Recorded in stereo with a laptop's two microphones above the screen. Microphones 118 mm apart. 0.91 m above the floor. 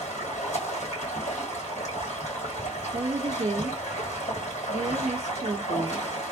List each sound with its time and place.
0.0 s running water: 80° left, 2.5 m
2.9 s a woman speaking: 55° right (ahead or behind), 0.5 m